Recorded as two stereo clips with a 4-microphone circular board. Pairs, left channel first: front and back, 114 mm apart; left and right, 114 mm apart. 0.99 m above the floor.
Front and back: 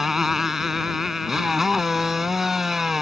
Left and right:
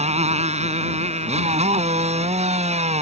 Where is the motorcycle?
95° right.